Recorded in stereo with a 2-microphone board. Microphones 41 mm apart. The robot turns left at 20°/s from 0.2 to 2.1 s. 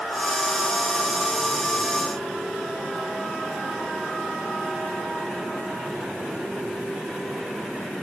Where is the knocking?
No knocking in this recording.